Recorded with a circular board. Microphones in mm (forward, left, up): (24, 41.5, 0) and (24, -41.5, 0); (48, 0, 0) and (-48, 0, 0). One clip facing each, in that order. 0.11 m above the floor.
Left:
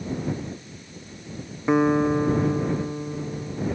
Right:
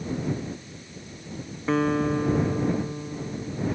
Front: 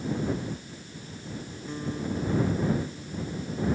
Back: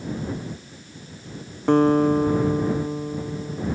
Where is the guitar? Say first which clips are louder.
Left 4 dB, back 17 dB; 165° left.